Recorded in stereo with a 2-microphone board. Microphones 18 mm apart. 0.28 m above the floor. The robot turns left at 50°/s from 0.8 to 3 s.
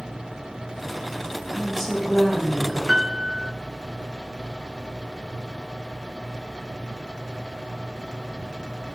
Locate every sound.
1.5 s a woman speaking: 30° left, 1.9 m; by 2.8 s 30° right, 1.9 m
2.9 s a piano: 45° right (ahead or behind), 0.6 m; by 3.5 s 50° right (ahead or behind), 0.6 m